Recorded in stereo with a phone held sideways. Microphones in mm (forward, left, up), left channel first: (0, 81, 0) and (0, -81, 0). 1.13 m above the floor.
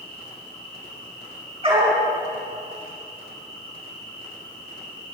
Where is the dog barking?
35° right (ahead or behind), 4.5 m.